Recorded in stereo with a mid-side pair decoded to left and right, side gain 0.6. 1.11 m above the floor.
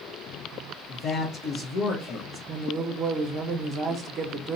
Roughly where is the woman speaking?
Ahead right.